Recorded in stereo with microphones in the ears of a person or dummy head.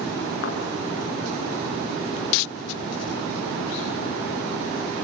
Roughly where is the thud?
Left.